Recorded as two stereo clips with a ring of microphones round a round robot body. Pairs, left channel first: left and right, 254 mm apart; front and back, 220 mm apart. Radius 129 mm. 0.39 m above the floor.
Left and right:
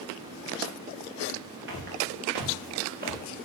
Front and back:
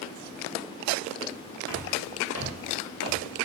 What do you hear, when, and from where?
1.7 s footsteps: 40° right, 6 m; by 3.2 s 35° right, 4.5 m